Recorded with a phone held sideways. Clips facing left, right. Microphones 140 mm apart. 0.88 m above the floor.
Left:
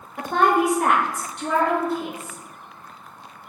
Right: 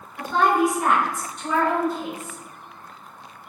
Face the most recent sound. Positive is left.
turn(degrees=60)  # may be behind; listen again after turning